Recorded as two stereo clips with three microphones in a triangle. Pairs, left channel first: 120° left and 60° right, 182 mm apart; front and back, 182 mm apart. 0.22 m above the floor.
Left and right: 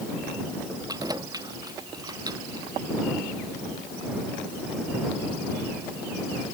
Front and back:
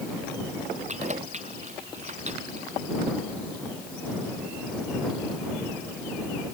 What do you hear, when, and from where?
0.9 s keys jangling: 130° right